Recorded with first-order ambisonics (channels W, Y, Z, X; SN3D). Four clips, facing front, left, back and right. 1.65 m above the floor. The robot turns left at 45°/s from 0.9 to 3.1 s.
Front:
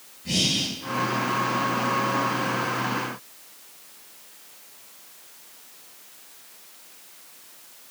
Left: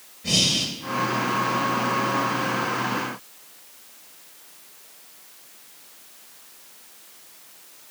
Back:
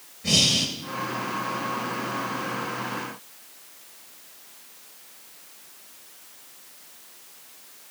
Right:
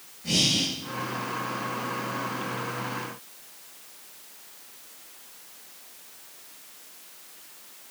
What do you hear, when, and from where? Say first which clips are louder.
0.2 s breathing: left 2 dB, back 3 dB; 165° left, 1.7 m